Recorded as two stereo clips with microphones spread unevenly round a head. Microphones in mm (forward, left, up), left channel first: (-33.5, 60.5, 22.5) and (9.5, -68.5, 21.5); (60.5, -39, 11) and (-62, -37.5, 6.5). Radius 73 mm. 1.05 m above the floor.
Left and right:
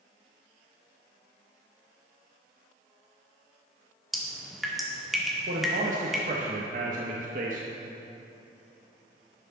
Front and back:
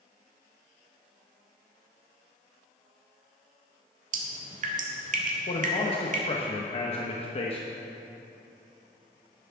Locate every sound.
4.1 s dripping: 160° right, 1.6 m
5.5 s a man speaking: 40° right, 1.1 m